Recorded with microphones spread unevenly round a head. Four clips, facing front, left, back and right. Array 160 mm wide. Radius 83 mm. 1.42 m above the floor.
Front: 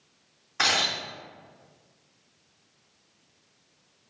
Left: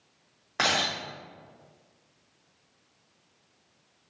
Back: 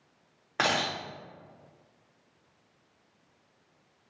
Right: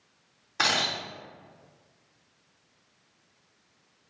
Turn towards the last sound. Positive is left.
turn(degrees=150)